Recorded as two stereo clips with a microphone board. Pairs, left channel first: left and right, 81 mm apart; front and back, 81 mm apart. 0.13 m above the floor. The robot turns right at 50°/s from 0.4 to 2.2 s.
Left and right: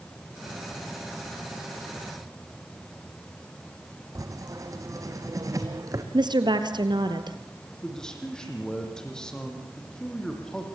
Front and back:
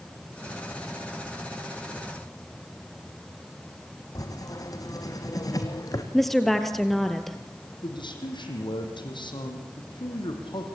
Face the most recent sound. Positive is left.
turn(degrees=10)